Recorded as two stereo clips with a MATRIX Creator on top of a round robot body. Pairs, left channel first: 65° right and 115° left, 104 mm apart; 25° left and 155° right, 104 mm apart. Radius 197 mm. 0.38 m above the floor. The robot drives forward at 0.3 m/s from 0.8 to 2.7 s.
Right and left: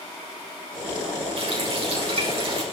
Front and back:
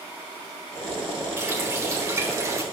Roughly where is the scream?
I don't hear a scream.